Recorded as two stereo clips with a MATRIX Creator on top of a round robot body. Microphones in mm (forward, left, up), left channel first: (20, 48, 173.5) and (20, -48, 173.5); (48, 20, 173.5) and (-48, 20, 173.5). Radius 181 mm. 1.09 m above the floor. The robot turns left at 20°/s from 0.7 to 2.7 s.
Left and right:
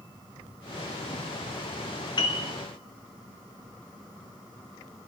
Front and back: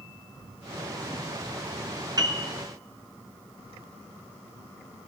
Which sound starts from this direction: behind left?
A piano, at 2.2 s.